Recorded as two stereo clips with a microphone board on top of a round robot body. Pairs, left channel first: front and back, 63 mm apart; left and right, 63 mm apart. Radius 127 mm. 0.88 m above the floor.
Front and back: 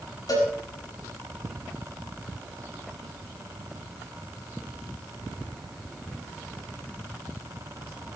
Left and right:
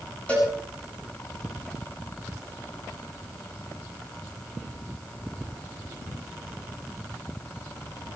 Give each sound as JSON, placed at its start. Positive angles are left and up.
{"t": 0.3, "sound": "a cowbell", "azimuth_deg": 20, "distance_m": 7.5}